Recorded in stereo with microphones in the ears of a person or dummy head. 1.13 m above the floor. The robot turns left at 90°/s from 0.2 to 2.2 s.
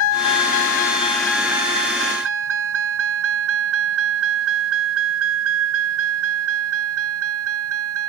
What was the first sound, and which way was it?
A vehicle, 75° left (ahead or behind).